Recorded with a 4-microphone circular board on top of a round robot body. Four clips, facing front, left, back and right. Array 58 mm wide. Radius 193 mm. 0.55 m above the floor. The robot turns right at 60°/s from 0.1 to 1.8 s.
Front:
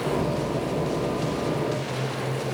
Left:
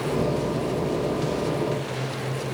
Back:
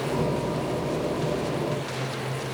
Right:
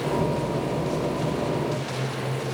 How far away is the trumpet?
I don't hear a trumpet.